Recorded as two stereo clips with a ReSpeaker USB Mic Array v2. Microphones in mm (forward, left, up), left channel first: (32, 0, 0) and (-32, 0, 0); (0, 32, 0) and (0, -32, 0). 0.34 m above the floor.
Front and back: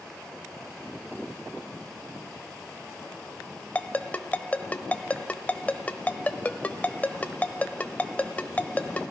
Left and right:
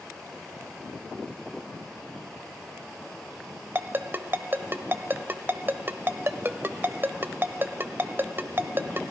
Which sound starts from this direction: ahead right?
A ringtone, at 3.8 s.